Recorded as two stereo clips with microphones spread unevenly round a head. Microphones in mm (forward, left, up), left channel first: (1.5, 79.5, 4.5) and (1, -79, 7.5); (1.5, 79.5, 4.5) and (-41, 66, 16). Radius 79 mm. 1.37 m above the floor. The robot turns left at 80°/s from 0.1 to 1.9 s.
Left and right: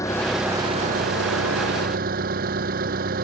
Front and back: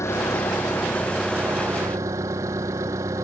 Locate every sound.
0.0 s an engine running: 15° left; by 3.2 s 125° right